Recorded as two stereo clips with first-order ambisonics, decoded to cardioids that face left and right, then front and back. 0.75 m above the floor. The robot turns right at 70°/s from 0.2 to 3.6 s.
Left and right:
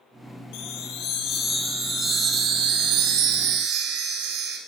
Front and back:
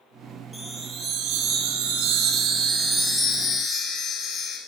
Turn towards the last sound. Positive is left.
turn(degrees=-60)